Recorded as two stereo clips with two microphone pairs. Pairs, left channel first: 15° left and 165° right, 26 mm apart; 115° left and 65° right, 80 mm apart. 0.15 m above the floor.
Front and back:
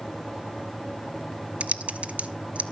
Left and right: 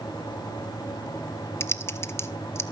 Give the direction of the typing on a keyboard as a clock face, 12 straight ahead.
6 o'clock.